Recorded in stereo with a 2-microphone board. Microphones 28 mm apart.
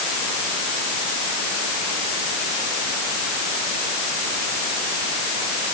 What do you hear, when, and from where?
Only background noise.